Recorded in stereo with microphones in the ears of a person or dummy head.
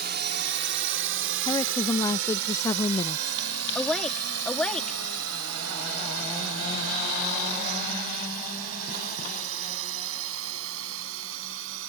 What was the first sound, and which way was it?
A drone, 50° right (ahead or behind).